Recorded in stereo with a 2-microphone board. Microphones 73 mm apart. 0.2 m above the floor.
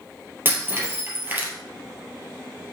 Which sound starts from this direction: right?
Breaking glass, at 0.5 s.